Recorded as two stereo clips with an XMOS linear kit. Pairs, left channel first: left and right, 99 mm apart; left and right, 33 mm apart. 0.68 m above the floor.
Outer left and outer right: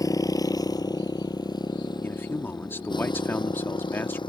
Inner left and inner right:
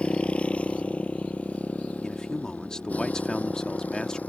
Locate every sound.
0.0 s a motorcycle: 35° left (ahead or behind); by 4.3 s 50° left (ahead or behind)
2.0 s a man speaking: 20° left (ahead or behind)